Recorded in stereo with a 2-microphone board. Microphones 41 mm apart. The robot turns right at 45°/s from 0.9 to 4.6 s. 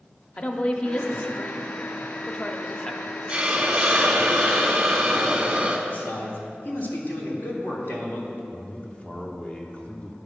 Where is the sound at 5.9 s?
50° left (ahead or behind), 1.5 m.